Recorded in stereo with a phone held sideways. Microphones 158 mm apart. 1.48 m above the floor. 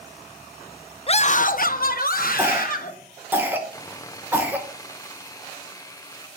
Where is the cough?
15° right (ahead or behind), 1.8 m.